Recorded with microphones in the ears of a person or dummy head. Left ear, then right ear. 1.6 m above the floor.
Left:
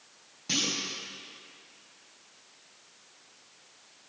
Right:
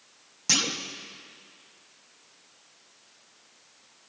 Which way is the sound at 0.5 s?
40° right (ahead or behind).